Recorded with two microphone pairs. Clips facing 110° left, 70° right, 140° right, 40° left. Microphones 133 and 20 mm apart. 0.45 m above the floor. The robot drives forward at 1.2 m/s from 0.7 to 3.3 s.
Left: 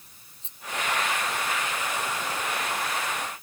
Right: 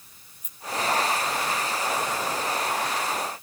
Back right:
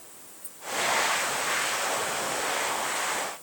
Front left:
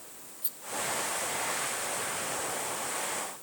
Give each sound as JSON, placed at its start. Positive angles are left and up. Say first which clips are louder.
{"t": 0.4, "sound": "a rattle", "louder": "even, front left 8 dB", "azimuth_deg": 50}